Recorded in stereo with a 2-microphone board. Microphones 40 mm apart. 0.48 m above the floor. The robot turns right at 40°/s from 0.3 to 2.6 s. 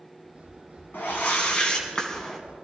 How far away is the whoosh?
About 2 m.